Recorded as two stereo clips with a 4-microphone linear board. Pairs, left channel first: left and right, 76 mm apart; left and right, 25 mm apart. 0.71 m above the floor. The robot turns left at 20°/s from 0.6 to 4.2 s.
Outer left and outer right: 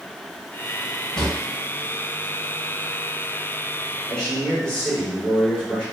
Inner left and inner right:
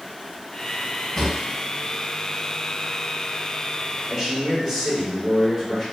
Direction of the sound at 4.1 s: 5° left (ahead or behind).